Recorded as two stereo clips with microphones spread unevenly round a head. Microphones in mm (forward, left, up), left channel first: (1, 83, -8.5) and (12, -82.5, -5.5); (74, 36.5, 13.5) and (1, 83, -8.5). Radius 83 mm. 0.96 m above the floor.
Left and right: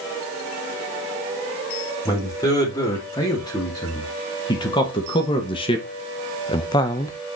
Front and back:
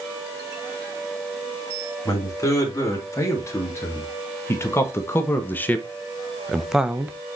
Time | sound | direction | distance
2.0 | a man speaking | 25° left | 2.5 m